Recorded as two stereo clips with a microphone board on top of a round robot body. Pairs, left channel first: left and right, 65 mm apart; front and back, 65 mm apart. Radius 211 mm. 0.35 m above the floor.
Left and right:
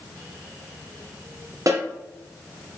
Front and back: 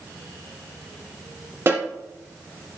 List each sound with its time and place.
1.7 s a snare drum: 130° right, 2.5 m